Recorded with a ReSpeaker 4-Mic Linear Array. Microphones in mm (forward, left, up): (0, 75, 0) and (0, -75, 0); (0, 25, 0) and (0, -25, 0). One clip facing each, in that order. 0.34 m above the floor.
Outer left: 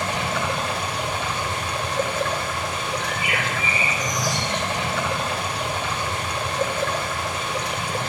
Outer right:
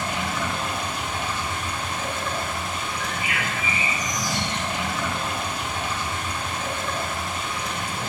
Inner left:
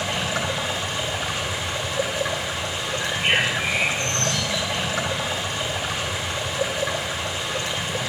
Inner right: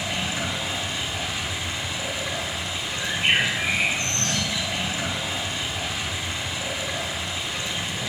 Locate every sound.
0.0 s running water: 65° left (ahead or behind), 2 m
3.0 s a bird: 40° right (ahead or behind), 3.5 m